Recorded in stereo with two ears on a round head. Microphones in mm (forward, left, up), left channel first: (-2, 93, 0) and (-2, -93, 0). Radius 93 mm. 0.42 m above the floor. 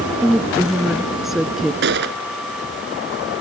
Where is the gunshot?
55° right (ahead or behind).